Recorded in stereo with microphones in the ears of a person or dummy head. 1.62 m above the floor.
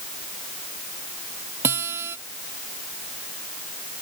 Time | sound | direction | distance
1.6 | a guitar | 15° right (ahead or behind) | ?